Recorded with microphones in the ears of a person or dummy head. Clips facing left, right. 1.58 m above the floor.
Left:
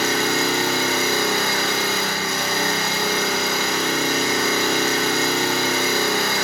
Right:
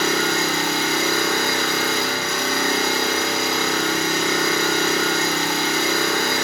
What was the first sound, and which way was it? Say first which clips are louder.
An engine running: even; 80° right.